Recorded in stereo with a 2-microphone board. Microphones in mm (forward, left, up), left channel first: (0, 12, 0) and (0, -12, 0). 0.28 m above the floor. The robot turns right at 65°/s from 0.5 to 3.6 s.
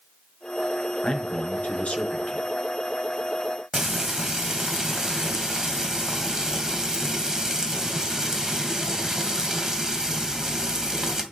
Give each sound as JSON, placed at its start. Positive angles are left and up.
{"t": 1.0, "sound": "a man speaking", "azimuth_deg": 35, "distance_m": 3.0}
{"t": 3.7, "sound": "frying", "side_deg": -25, "distance_m": 2.0}